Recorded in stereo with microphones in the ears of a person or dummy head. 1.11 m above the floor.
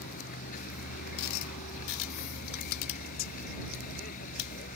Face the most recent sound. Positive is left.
turn(degrees=45)  # may be behind; listen again after turning